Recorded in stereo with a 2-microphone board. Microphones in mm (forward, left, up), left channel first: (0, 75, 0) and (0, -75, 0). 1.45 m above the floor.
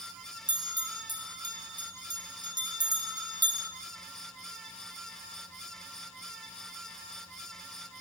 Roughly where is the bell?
Right.